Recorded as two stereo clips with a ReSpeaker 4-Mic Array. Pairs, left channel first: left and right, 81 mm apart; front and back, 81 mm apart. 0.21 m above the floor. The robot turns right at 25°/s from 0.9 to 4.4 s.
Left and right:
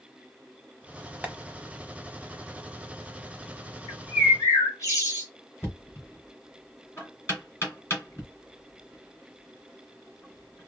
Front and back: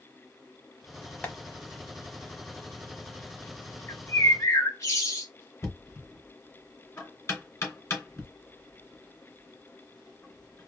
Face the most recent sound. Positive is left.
turn(degrees=40)